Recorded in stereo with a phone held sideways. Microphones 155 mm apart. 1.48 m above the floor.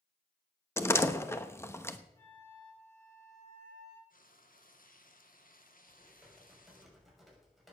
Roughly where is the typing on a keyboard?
Centre.